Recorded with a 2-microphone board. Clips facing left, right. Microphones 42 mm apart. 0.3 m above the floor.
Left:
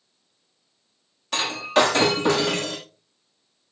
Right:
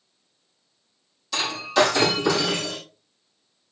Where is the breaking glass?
50° left (ahead or behind), 8.5 m.